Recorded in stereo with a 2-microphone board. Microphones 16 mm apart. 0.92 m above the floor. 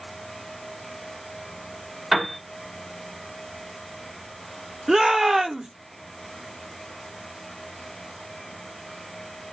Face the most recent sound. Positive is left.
turn(degrees=-50)  # may be behind; listen again after turning